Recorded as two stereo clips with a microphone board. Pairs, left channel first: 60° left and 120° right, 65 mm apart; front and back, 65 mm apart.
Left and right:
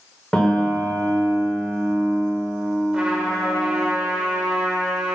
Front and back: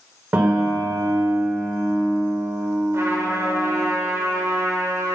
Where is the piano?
130° left, 1.7 m.